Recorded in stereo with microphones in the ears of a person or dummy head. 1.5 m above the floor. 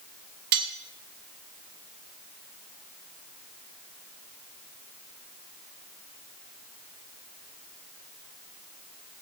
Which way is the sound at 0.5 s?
50° right (ahead or behind).